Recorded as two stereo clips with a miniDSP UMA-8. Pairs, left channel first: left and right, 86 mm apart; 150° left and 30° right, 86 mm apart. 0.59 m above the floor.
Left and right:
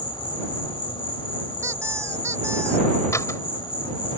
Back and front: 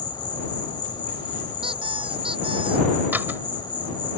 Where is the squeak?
35° right.